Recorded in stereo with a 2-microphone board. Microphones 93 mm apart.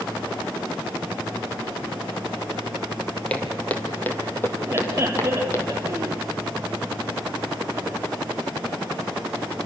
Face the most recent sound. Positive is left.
turn(degrees=-30)  # may be behind; listen again after turning